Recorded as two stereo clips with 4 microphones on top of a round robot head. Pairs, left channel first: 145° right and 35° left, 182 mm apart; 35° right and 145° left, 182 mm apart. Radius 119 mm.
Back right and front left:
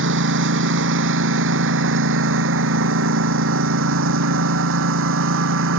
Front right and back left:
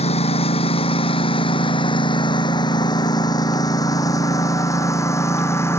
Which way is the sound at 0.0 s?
20° left.